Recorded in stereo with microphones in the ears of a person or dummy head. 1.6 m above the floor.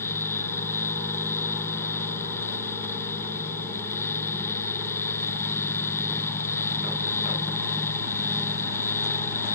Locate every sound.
0.0 s a fan: 15° left (ahead or behind)